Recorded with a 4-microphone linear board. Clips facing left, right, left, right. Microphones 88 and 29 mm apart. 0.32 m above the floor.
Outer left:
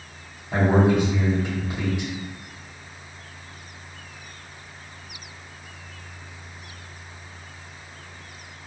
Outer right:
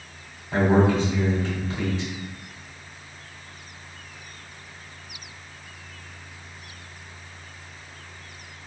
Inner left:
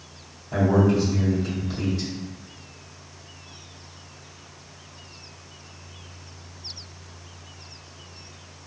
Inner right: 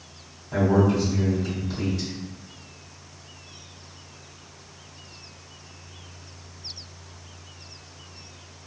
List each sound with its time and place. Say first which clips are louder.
0.5 s a man speaking: even, inner left 1 dB; 15° left (ahead or behind), 1.9 m